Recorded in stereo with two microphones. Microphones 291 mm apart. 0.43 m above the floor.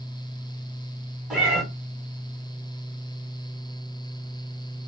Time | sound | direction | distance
1.3 | a cat meowing | 5° right (ahead or behind) | 1.9 m